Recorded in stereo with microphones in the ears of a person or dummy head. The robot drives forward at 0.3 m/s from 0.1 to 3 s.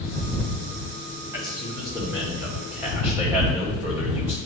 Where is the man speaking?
10° right (ahead or behind), 1.7 m.